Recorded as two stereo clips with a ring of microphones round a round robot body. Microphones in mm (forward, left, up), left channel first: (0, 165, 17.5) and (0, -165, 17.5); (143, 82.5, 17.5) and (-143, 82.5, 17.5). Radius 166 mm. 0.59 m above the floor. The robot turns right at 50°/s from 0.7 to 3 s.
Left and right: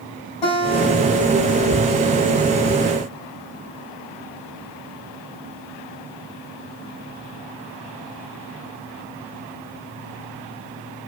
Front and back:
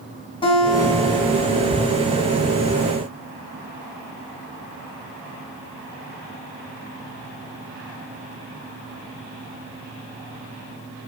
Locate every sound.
0.4 s a guitar: 75° left, 6 m; by 1.7 s 125° left, 6 m